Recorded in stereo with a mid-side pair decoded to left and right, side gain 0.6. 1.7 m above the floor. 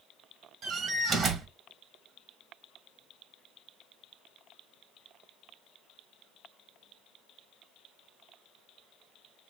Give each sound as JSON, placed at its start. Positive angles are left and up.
{"t": 0.6, "sound": "a door slam", "azimuth_deg": -45, "distance_m": 1.6}